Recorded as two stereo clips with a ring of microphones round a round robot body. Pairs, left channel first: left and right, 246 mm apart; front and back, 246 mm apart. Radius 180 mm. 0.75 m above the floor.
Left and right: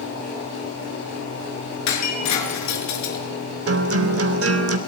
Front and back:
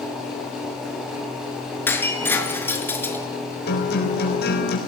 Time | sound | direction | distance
1.9 | breaking glass | 80° left | 5.5 m
3.7 | a guitar | 60° right | 3.5 m